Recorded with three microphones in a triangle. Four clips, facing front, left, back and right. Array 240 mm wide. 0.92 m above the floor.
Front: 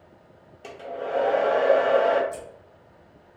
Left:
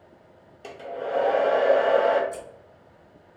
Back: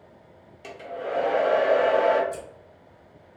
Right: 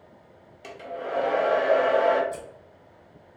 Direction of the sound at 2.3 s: 85° right.